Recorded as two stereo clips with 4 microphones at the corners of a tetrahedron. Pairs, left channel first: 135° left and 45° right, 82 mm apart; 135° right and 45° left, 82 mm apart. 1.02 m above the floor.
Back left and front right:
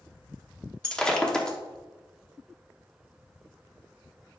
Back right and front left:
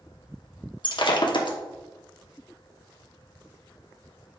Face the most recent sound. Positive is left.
turn(degrees=-145)